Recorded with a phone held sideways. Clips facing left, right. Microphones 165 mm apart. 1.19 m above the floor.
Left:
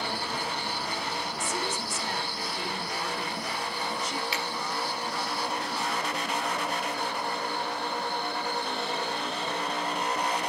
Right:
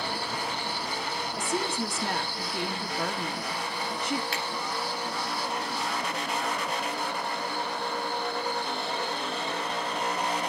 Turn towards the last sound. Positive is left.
turn(degrees=-50)  # may be behind; listen again after turning